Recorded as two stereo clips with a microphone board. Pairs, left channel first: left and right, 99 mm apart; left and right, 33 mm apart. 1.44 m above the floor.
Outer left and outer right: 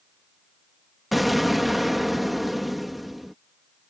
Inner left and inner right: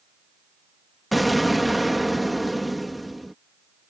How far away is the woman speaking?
I don't hear a woman speaking.